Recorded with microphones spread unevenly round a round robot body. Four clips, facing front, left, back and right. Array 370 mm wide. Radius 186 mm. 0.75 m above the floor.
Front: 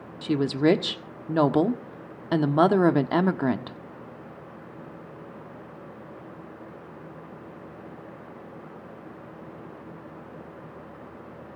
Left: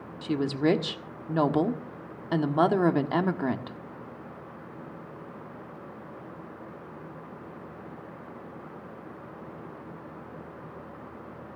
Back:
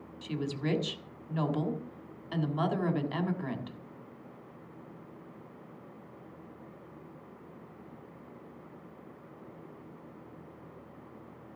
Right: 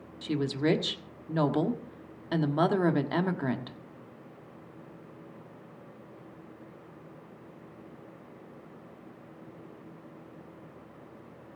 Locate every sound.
0.2 s a woman speaking: 10° left, 1.6 m